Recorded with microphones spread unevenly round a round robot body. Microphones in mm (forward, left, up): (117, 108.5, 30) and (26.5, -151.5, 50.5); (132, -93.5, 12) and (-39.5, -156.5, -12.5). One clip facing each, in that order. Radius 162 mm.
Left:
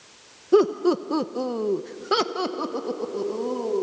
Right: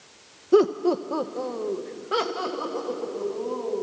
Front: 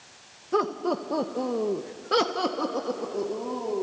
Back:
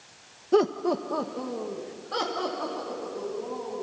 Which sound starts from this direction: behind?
Laughter, at 0.5 s.